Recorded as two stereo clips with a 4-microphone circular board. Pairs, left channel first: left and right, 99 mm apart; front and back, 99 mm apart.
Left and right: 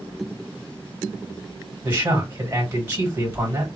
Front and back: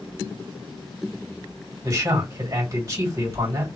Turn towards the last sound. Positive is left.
turn(degrees=-150)